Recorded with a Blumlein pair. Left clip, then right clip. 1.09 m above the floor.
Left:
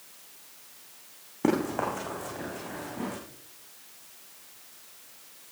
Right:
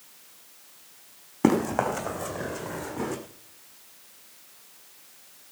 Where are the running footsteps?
30° right, 3.5 m; by 3.2 s 45° right, 3.5 m.